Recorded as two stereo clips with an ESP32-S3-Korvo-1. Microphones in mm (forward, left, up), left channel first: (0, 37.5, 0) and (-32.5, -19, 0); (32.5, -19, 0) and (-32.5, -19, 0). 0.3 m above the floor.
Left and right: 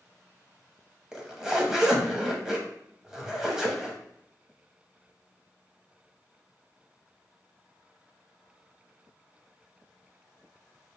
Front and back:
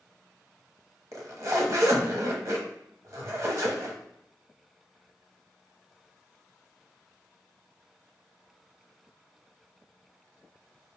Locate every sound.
1.1 s a zipper: 160° left, 0.9 m